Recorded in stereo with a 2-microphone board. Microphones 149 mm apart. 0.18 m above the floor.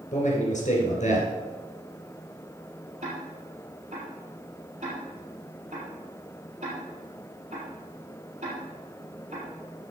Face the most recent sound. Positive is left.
turn(degrees=-45)  # may be behind; listen again after turning